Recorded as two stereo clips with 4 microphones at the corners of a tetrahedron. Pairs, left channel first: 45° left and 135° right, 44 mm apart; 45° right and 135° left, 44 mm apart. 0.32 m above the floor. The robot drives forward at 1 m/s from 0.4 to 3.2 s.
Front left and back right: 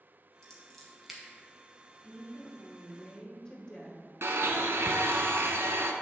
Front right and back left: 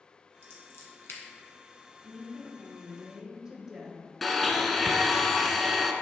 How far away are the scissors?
About 1.9 m.